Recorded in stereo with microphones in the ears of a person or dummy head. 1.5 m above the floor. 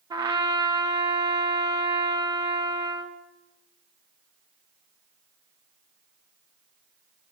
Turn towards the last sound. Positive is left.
turn(degrees=-20)  # may be behind; listen again after turning